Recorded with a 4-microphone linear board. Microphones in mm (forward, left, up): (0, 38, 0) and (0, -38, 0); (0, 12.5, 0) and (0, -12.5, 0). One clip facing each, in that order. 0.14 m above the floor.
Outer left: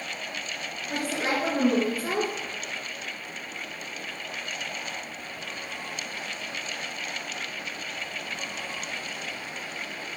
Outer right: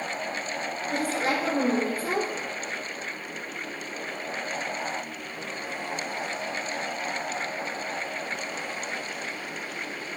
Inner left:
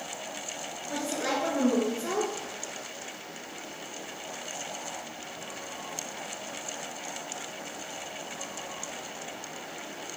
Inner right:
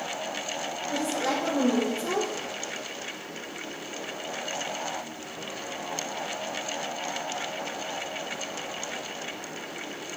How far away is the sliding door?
No sliding door in this recording.